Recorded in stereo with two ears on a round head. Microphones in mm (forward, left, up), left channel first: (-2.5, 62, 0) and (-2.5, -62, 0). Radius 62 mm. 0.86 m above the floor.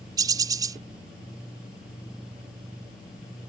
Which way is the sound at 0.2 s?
30° right (ahead or behind).